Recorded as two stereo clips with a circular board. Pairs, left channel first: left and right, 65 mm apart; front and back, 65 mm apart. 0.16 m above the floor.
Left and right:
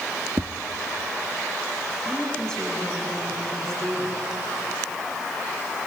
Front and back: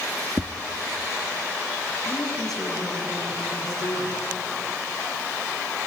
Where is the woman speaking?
5° left, 8 m.